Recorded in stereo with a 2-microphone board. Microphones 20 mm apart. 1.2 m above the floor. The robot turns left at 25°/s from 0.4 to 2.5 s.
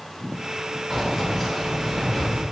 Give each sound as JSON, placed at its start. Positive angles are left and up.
{"t": 0.9, "sound": "keys jangling", "azimuth_deg": -170, "distance_m": 1.1}